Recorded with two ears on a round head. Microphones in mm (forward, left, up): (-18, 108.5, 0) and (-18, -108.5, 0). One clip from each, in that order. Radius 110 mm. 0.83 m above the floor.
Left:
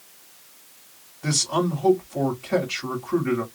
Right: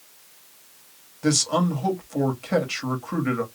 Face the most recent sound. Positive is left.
turn(degrees=-35)  # may be behind; listen again after turning